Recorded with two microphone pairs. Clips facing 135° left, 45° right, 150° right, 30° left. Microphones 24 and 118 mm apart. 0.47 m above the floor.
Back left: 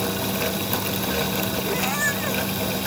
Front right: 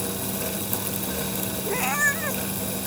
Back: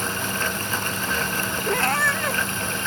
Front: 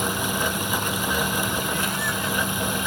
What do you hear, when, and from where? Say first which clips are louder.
1.7 s a cat meowing: front right 3 dB, back 4 dB; 125° right